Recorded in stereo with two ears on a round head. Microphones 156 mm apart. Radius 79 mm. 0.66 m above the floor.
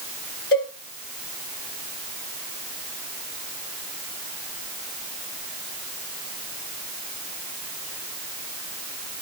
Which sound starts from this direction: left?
A cowbell, at 0.5 s.